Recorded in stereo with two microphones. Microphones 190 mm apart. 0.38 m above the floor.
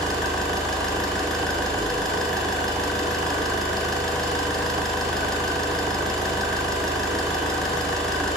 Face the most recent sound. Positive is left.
turn(degrees=0)  # may be behind; listen again after turning